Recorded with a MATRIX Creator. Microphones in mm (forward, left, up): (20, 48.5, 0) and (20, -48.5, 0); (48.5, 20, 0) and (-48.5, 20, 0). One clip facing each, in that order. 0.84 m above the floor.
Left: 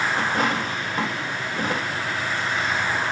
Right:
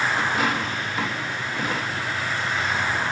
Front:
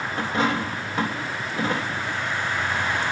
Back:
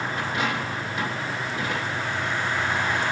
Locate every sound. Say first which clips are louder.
0.2 s a dropped coin: left 1 dB, front 6 dB; 50° left, 3 m